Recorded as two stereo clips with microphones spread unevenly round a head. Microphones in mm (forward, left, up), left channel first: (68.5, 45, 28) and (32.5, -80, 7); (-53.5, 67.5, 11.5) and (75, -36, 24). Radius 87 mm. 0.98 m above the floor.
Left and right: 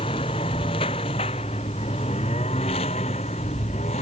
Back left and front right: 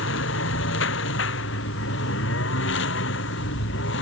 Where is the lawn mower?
140° left; by 4.0 s 135° left.